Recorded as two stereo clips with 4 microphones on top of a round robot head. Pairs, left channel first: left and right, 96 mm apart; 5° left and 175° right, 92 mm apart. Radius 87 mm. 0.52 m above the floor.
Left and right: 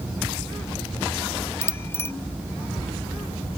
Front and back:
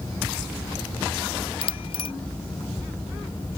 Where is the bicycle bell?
25° left.